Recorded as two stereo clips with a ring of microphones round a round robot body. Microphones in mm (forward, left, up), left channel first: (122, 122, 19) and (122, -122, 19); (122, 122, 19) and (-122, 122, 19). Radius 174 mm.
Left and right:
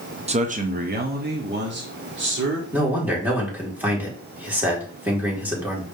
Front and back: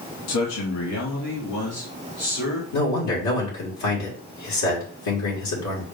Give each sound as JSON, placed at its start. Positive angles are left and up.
{"t": 0.3, "sound": "a man speaking", "azimuth_deg": -20, "distance_m": 0.8}
{"t": 2.7, "sound": "a man speaking", "azimuth_deg": -5, "distance_m": 2.5}